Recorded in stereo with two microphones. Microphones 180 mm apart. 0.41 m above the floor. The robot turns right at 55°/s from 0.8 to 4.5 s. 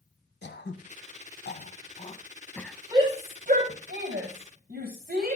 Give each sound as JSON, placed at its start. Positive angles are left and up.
{"t": 0.4, "sound": "throat clearing", "side_deg": 75, "distance_m": 1.0}
{"t": 2.9, "sound": "a shout", "side_deg": -20, "distance_m": 2.5}